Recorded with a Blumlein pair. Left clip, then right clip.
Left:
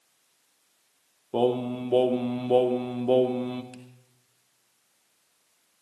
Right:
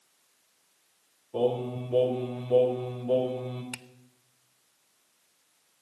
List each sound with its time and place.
1.3 s singing: 55° left, 1.6 m
3.7 s a finger snap: 30° right, 0.9 m